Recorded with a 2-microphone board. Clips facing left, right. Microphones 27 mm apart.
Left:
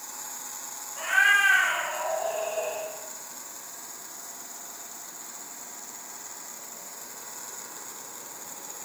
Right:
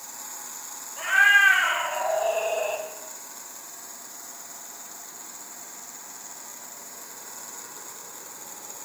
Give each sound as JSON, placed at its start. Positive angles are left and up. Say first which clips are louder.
{"t": 1.0, "sound": "a cat meowing", "louder": "right 3 dB", "side_deg": 0, "distance_m": 1.6}